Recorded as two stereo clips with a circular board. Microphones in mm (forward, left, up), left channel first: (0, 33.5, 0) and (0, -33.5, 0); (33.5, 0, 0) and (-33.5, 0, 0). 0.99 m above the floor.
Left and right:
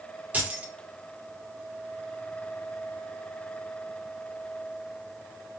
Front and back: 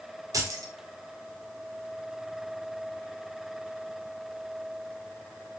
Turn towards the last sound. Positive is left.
turn(degrees=-155)